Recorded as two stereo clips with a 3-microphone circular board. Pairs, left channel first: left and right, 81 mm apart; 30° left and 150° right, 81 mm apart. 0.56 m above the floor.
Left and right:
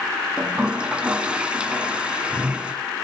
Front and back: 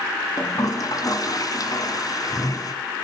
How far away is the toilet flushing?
About 1.8 m.